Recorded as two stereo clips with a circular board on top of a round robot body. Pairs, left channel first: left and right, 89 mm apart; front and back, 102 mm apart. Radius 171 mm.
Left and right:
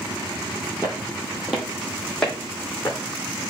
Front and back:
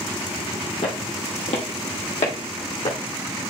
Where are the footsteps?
25° right, 1.2 m; by 3.0 s 15° left, 2.5 m.